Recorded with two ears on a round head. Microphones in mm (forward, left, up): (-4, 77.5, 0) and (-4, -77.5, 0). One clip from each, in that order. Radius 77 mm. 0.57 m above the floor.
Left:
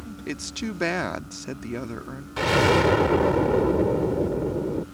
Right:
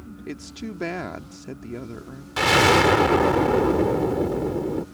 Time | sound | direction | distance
0.3 | a woman speaking | 35° left (ahead or behind) | ?
2.4 | an explosion | 35° right (ahead or behind) | ?